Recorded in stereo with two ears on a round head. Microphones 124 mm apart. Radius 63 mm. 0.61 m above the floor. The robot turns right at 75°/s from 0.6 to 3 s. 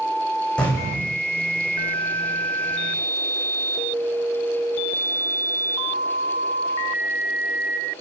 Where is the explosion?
5° left, 7 m; by 1.2 s 55° left, 7 m.